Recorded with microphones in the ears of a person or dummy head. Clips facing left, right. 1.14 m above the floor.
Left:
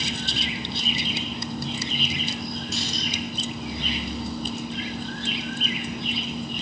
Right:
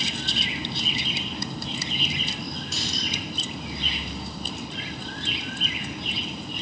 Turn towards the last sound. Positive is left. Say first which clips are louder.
# left 2 dB
turn(degrees=-85)